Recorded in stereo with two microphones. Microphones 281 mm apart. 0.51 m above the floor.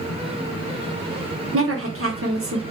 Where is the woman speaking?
50° right (ahead or behind), 1.1 m.